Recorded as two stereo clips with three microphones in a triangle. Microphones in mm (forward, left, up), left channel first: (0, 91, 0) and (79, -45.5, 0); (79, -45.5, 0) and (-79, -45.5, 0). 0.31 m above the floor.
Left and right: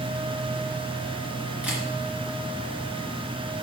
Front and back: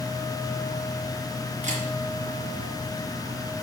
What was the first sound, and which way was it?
A camera shutter, 140° right.